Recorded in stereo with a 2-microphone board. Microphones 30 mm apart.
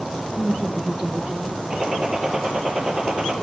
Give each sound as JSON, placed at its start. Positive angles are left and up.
{"t": 0.4, "sound": "a woman speaking", "side_deg": 0, "distance_m": 1.6}
{"t": 1.7, "sound": "a gunshot", "side_deg": -20, "distance_m": 2.0}